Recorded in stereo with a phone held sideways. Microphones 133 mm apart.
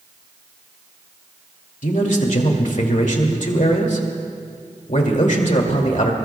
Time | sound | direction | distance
1.8 | a man speaking | 65° left (ahead or behind) | 2.5 m